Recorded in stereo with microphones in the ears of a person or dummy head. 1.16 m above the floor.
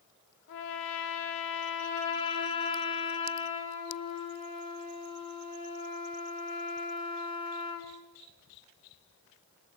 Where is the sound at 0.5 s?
75° left (ahead or behind), 2.5 m.